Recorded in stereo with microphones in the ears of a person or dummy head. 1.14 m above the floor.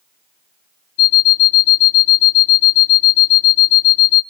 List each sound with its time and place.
1.0 s an alarm clock: 50° left (ahead or behind), 1.1 m